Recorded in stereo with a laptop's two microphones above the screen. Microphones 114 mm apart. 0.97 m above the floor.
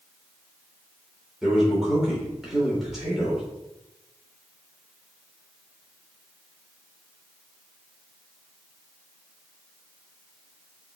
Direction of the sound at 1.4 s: 5° right (ahead or behind).